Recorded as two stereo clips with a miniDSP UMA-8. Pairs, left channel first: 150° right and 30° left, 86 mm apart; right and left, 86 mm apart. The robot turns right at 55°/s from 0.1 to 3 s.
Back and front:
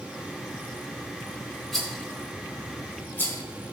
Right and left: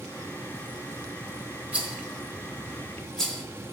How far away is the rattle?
About 1.5 m.